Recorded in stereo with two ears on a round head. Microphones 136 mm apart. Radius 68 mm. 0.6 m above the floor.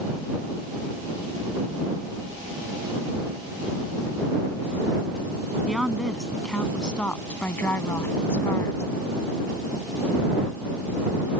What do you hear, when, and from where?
5.7 s a woman speaking: centre (ahead or behind); by 8.8 s 20° left (ahead or behind)